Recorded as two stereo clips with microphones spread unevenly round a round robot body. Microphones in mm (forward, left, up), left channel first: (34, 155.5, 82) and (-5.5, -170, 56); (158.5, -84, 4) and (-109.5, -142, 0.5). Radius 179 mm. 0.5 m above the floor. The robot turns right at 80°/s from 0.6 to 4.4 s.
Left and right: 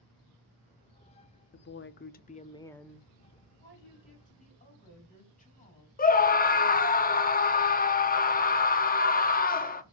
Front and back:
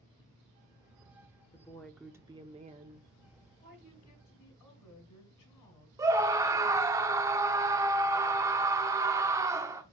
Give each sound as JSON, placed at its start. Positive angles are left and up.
{"t": 1.5, "sound": "a woman speaking", "azimuth_deg": 70, "distance_m": 0.8}
{"t": 3.6, "sound": "a woman speaking", "azimuth_deg": -50, "distance_m": 3.5}
{"t": 6.0, "sound": "a scream", "azimuth_deg": 125, "distance_m": 1.0}